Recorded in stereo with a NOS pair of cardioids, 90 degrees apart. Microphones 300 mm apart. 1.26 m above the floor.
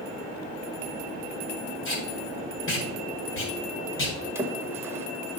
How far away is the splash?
About 1.8 m.